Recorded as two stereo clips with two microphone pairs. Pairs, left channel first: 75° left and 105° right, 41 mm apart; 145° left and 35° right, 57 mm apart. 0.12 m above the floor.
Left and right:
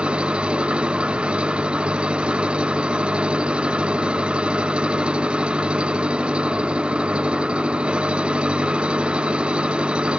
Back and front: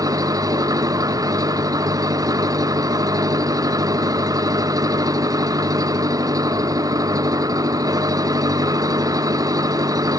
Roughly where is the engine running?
Ahead right.